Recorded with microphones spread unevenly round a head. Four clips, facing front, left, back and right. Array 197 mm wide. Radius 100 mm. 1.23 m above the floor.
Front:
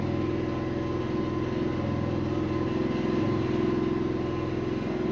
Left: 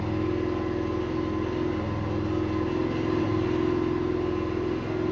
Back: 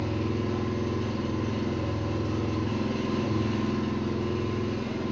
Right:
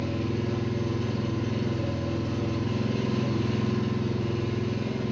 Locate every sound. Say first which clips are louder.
0.0 s an engine running: left 3 dB, front 1 dB; 45° left, 1.2 m